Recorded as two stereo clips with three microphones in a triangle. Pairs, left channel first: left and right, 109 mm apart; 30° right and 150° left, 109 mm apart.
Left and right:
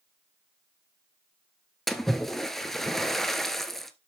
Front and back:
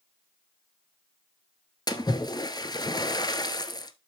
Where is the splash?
5° left, 1.0 m.